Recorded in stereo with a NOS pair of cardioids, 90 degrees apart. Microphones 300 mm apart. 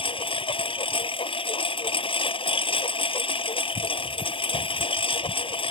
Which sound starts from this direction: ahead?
A lawn mower, at 0.0 s.